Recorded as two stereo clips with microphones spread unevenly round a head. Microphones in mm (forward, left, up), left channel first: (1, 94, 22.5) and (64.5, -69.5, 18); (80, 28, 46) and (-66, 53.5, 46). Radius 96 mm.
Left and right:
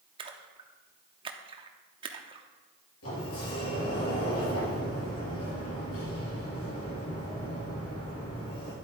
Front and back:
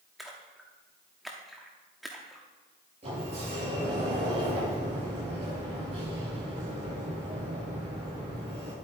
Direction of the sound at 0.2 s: 100° right.